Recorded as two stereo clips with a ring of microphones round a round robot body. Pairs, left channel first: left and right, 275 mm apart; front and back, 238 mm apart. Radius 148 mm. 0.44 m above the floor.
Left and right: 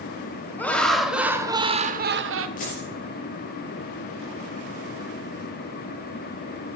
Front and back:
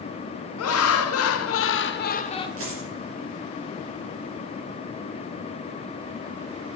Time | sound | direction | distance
0.6 | laughter | 5° left | 2 m
2.6 | a dropped coin | 150° left | 5.5 m